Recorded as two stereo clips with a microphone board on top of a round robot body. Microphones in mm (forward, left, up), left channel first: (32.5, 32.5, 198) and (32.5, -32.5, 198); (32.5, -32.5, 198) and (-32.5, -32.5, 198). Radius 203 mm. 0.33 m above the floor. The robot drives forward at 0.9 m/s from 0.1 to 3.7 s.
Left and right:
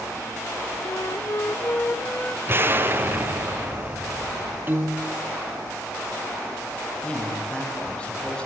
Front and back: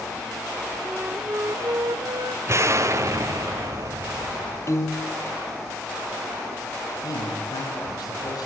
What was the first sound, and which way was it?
A flute, 100° left.